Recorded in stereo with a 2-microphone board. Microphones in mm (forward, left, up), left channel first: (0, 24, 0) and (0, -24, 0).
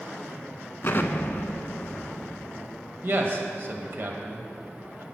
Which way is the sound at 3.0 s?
50° right (ahead or behind).